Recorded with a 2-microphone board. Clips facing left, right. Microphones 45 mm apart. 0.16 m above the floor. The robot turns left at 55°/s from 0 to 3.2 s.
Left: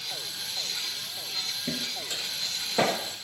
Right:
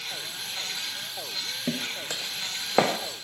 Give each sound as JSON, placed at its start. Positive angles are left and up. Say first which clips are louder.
{"t": 1.7, "sound": "footsteps", "louder": "right 3 dB", "side_deg": -70, "distance_m": 0.5}